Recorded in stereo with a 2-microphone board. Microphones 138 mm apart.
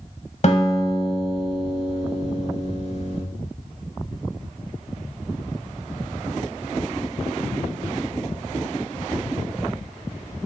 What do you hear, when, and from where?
0.4 s a guitar: 55° left (ahead or behind), 1.0 m